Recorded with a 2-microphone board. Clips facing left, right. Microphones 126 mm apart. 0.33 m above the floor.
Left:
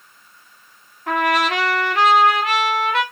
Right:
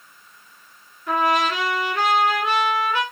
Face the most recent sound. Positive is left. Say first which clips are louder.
# left 1 dB
turn(degrees=80)